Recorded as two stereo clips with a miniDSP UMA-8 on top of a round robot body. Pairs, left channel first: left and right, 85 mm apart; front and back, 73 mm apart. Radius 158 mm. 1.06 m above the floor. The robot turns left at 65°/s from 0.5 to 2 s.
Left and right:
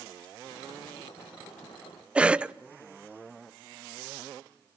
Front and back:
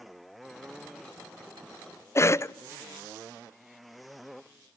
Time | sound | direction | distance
2.1 | a cough | 20° right | 0.7 m